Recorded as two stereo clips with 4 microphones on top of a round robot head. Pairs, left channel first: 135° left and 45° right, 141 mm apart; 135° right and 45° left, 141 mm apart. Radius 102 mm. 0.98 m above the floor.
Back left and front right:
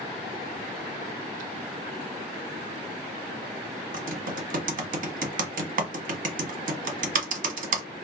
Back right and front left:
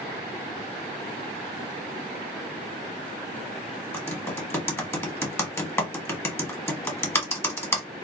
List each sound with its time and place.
3.9 s typing on a keyboard: 60° right, 0.9 m